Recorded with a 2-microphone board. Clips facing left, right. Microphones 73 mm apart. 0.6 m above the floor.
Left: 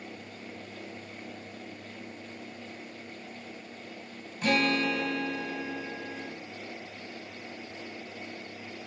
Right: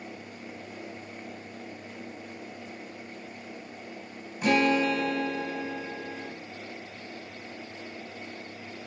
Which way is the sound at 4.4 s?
10° right (ahead or behind).